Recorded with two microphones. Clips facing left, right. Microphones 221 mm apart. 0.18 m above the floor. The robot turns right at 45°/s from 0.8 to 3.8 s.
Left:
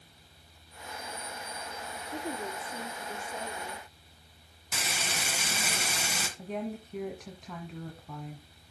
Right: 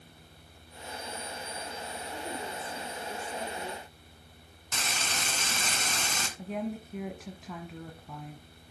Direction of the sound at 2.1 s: 135° left.